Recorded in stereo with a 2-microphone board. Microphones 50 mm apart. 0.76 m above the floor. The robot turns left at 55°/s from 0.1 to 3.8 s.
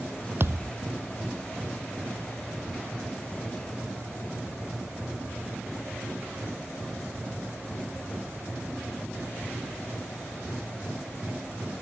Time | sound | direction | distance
0.4 | a thud | 50° right (ahead or behind) | ?